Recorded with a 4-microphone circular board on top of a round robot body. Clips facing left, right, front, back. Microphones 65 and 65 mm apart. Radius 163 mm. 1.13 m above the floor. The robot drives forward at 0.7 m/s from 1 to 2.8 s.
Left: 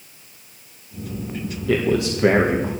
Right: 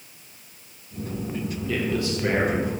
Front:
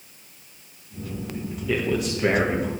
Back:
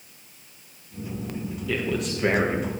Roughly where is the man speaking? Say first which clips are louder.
Left 7 dB, front 3 dB; left.